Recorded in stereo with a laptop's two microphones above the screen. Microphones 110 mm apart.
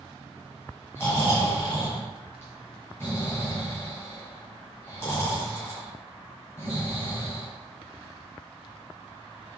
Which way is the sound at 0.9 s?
20° left (ahead or behind).